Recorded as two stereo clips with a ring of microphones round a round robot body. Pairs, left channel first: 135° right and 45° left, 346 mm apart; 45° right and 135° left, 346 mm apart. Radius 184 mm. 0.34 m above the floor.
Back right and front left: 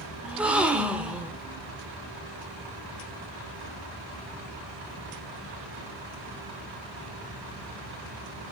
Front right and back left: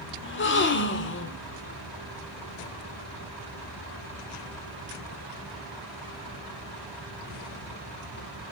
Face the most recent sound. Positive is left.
turn(degrees=-40)